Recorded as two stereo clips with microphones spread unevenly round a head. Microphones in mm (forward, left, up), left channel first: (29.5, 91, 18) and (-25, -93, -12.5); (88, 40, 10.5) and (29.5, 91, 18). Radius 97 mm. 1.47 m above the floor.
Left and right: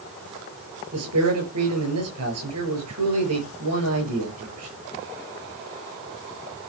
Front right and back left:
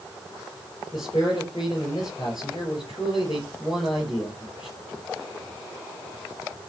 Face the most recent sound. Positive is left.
turn(degrees=-115)